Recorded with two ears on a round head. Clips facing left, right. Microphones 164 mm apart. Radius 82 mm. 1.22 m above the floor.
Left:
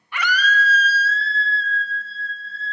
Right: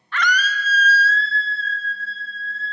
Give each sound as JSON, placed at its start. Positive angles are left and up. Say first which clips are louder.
{"t": 0.1, "sound": "a scream", "louder": "even", "side_deg": 15, "distance_m": 0.8}